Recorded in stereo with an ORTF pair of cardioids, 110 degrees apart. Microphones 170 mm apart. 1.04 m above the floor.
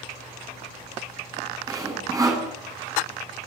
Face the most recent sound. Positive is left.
turn(degrees=-20)